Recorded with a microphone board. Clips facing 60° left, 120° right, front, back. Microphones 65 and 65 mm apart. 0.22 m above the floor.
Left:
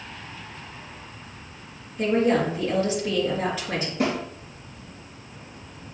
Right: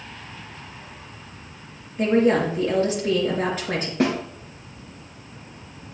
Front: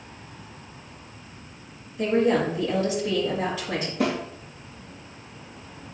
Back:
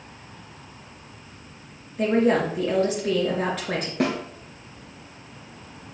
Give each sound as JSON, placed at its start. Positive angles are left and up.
{"t": 2.0, "sound": "a woman speaking", "azimuth_deg": -155, "distance_m": 4.0}
{"t": 4.0, "sound": "a snare drum", "azimuth_deg": -155, "distance_m": 3.5}